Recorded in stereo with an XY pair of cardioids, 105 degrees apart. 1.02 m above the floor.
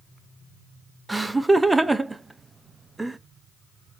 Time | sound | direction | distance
1.1 | laughter | 15° right | 0.5 m